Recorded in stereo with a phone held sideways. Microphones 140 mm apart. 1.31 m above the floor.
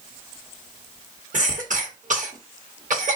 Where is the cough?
65° right (ahead or behind), 1.6 m.